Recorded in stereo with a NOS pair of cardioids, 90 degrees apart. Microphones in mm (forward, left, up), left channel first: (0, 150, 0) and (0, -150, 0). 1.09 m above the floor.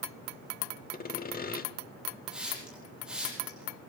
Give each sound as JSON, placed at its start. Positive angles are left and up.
{"t": 0.9, "sound": "sawing", "azimuth_deg": 30, "distance_m": 1.2}
{"t": 2.3, "sound": "a hiss", "azimuth_deg": -5, "distance_m": 10.0}